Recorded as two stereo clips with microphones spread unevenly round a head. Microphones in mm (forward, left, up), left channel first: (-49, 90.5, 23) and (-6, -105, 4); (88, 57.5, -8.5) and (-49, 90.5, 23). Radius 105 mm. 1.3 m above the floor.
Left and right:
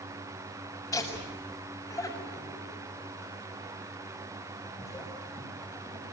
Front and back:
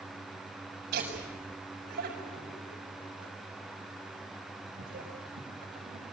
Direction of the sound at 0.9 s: Straight behind.